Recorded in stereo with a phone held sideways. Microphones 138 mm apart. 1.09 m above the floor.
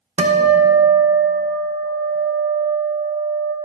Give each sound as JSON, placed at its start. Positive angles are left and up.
{"t": 0.2, "sound": "a guitar", "side_deg": -55, "distance_m": 0.8}